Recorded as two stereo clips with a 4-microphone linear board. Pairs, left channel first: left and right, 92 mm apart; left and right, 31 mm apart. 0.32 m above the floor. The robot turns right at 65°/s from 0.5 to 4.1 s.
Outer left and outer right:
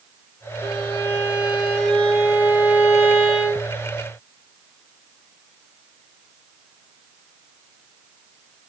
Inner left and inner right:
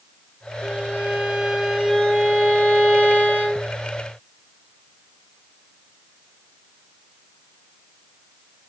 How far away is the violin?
About 4.5 m.